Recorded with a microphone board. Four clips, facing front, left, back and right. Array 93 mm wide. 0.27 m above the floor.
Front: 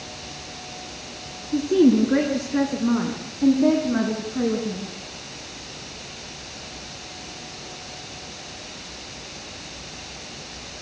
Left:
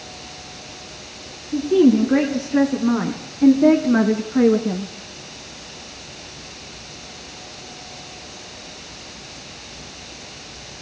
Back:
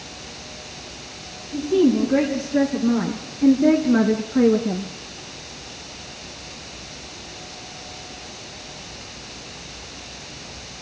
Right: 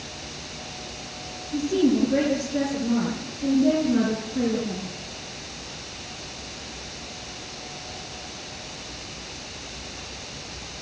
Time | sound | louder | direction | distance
1.5 | a woman speaking | left 7 dB, front 1 dB | 55° left | 3.5 m